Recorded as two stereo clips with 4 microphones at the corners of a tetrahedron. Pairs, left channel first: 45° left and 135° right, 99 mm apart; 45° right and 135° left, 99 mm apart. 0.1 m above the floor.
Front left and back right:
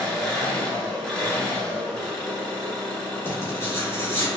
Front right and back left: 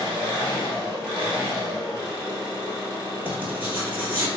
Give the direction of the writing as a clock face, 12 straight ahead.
9 o'clock.